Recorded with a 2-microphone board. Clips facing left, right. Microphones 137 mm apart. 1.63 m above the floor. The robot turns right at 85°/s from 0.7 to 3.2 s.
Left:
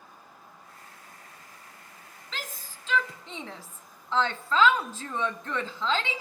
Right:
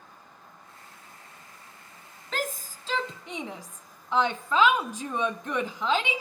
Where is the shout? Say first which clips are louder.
Right 9 dB; 50° right (ahead or behind), 0.7 m; by 6.2 s 15° right (ahead or behind), 0.7 m.